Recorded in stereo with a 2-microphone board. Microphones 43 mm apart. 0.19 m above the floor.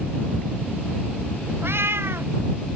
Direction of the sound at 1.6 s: 75° right (ahead or behind).